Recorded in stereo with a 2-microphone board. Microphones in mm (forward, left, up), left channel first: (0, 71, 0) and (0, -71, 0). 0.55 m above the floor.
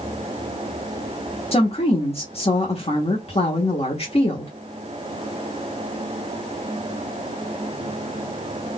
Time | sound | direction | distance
1.5 | a woman speaking | 45° left (ahead or behind) | 1.1 m